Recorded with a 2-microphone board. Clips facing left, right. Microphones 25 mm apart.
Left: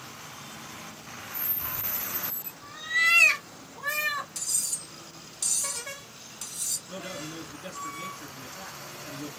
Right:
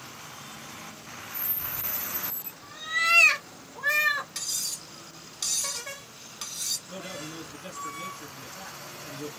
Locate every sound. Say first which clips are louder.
1.6 s a cat meowing: even; 35° left (ahead or behind), 0.7 m; by 4.2 s 30° right (ahead or behind), 1.2 m
4.3 s cutlery clinking: even; 40° right (ahead or behind), 1.1 m
6.9 s a man speaking: left 1 dB; centre (ahead or behind), 2 m